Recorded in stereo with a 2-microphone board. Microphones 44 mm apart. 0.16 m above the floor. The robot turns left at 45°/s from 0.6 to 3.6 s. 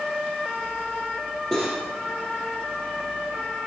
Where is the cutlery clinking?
10° left (ahead or behind), 3 m; by 1.8 s 5° right (ahead or behind), 3 m.